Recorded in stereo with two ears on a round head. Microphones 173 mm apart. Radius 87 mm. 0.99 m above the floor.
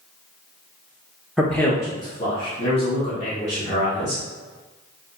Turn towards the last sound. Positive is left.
turn(degrees=35)  # may be behind; listen again after turning